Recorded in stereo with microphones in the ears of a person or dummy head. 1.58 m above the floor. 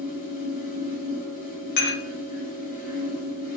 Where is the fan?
55° left (ahead or behind), 1.1 m.